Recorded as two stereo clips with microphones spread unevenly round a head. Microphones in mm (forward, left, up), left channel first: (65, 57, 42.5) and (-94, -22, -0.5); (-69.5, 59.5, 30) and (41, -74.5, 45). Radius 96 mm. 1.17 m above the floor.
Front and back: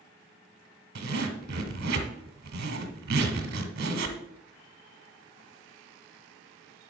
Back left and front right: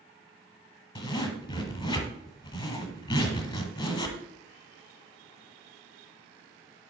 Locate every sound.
0.9 s a zipper: 170° right, 1.2 m